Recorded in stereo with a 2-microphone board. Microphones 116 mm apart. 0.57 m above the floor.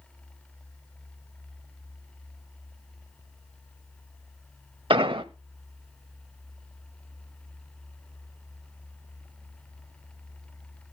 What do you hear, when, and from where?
4.9 s an explosion: 45° right (ahead or behind), 0.6 m